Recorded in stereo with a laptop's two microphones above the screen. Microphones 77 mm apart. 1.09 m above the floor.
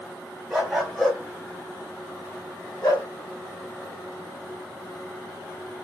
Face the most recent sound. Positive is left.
turn(degrees=55)  # may be behind; listen again after turning